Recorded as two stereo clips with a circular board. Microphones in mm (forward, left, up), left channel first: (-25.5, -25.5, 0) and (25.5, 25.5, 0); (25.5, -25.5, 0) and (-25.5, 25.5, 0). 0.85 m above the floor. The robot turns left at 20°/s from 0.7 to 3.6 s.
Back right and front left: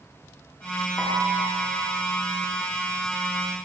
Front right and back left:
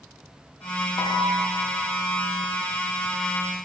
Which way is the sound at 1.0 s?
65° right.